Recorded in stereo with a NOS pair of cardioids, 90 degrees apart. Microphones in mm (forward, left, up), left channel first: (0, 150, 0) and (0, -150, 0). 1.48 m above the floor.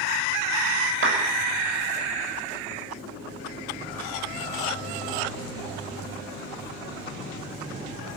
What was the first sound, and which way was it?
A clap, 45° right.